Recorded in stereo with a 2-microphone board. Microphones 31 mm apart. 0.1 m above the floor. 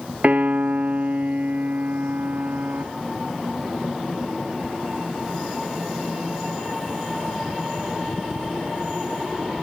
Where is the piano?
50° right (ahead or behind), 1.1 m.